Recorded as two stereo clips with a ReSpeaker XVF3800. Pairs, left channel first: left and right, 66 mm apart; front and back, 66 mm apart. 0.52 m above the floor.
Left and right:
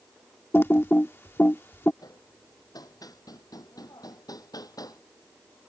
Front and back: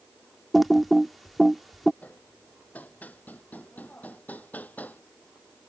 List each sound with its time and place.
0.5 s typing on a keyboard: 90° left
2.0 s hammering: 65° left